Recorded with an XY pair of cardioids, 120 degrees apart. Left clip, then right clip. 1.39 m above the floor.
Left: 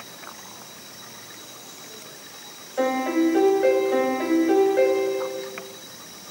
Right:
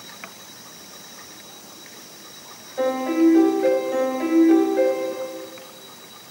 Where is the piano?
25° left, 2.0 m.